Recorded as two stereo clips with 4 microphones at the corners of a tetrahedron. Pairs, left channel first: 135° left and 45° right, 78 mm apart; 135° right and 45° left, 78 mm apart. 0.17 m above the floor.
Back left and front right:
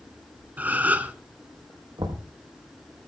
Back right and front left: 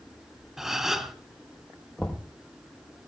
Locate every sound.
0.6 s a gasp: 35° right, 1.3 m
2.0 s knocking: 55° right, 3.5 m